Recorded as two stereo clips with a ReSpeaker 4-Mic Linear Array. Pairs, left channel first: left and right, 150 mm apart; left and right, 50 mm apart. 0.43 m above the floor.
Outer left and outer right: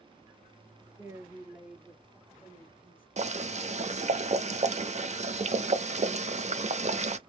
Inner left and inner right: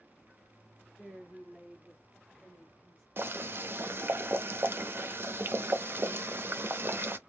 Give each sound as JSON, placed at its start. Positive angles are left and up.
{"t": 1.0, "sound": "a woman speaking", "side_deg": -15, "distance_m": 1.0}
{"t": 3.2, "sound": "boiling", "side_deg": -50, "distance_m": 0.6}